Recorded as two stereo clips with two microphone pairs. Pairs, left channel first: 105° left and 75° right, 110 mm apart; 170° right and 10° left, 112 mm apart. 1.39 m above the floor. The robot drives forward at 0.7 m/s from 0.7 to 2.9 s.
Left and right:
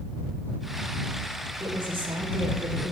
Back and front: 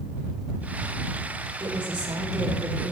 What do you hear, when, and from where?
1.6 s a woman speaking: 35° right, 4 m; by 2.9 s 40° right, 3 m